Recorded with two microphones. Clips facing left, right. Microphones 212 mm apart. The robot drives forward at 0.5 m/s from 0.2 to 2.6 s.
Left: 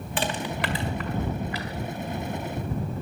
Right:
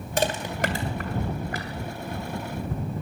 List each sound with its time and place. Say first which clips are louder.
0.2 s crushing: right 3 dB; 45° right (ahead or behind), 1.9 m; by 1.7 s 50° right (ahead or behind), 1.8 m